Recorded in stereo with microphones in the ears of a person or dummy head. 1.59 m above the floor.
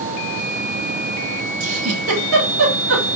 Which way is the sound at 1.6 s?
80° right.